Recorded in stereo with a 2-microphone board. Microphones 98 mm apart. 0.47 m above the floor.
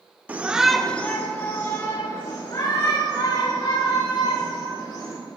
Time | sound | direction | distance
0.3 | a shout | 20° right (ahead or behind) | 1.1 m